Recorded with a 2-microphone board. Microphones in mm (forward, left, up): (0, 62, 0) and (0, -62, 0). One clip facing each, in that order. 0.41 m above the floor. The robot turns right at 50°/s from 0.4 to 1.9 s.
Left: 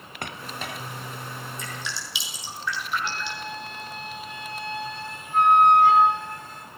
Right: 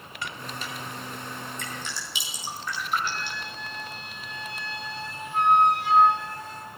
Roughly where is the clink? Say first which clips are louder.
Left 1 dB; left.